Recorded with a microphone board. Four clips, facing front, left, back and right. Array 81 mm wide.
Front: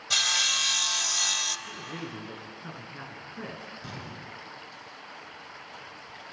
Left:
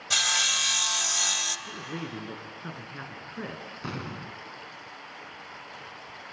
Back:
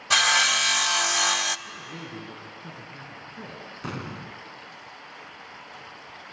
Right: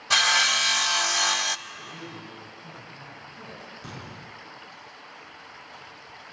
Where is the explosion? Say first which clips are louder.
Left 8 dB, back 6 dB; 150° left, 0.9 m.